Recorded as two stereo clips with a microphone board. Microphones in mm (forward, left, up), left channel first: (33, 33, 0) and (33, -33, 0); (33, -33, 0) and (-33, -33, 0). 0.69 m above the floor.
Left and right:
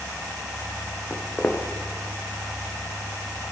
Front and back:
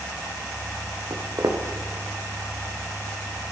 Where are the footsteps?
155° left, 1.7 m.